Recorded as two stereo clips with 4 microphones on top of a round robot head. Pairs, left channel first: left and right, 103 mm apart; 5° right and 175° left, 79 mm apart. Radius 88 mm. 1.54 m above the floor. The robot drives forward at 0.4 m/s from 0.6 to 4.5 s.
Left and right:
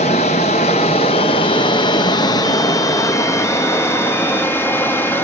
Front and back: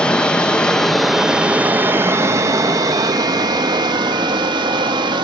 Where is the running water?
70° left, 0.9 m; by 5.2 s 160° left, 1.6 m.